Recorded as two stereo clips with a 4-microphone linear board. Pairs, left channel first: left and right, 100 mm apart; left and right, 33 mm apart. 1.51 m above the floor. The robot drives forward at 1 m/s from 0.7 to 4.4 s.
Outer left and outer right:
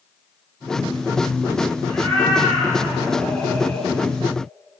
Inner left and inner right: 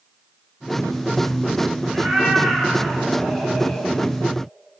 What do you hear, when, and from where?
1.9 s a cat meowing: 10° left (ahead or behind), 9.5 m; by 3.9 s 15° left (ahead or behind), 7.5 m